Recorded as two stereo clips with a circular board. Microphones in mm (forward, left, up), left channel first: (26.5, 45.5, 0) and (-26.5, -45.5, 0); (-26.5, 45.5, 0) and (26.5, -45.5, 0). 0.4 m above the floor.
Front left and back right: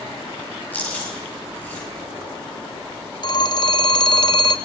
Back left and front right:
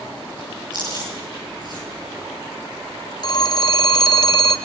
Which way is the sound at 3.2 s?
85° left.